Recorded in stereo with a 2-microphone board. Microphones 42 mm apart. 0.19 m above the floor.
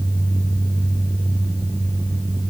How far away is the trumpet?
I don't hear a trumpet.